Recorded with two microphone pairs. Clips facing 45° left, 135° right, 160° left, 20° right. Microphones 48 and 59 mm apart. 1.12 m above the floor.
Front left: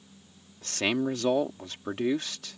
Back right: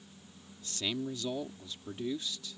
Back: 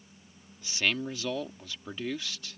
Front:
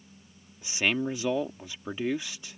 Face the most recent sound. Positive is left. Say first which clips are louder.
# front left 9 dB, front 3 dB
turn(degrees=50)